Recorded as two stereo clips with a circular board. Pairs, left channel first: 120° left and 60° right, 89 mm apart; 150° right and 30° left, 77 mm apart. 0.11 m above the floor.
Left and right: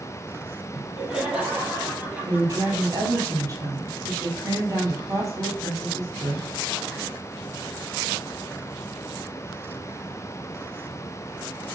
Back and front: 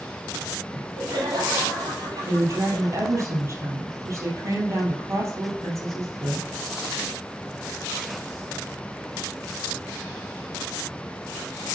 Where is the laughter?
20° left, 4 m; by 3.3 s 5° left, 3 m.